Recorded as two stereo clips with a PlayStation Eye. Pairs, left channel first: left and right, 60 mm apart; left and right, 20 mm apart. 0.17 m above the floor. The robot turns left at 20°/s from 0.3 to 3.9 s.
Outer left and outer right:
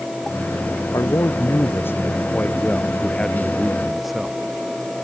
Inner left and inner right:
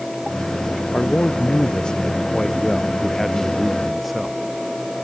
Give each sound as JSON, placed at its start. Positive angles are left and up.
{"t": 0.9, "sound": "a man speaking", "azimuth_deg": 55}